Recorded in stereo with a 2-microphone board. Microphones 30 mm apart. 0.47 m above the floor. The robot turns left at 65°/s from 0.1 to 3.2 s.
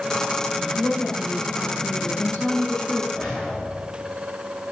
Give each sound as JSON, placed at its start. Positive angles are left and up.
{"t": 0.8, "sound": "a woman speaking", "azimuth_deg": -175, "distance_m": 6.0}
{"t": 3.1, "sound": "a whoosh", "side_deg": 25, "distance_m": 8.0}